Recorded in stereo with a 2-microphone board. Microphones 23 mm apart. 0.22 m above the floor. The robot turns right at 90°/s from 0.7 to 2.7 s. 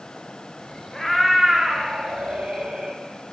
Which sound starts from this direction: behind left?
A cat meowing, at 0.9 s.